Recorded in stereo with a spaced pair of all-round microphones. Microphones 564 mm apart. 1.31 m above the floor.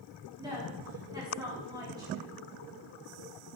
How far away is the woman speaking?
About 3.5 m.